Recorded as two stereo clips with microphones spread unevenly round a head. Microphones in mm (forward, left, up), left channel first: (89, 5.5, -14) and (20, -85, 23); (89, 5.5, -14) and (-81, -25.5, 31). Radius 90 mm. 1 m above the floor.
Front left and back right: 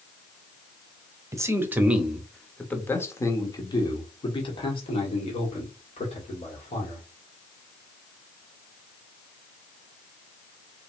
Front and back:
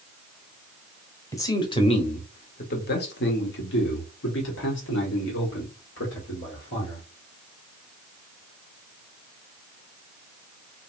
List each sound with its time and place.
1.3 s a man speaking: 60° right, 1.2 m; by 7.0 s 30° left, 3 m